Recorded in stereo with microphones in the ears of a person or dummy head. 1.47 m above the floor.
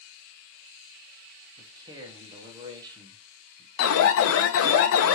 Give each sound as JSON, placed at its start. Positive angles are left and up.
{"t": 1.6, "sound": "a man speaking", "side_deg": -25, "distance_m": 1.3}
{"t": 3.8, "sound": "an alarm", "side_deg": 70, "distance_m": 0.9}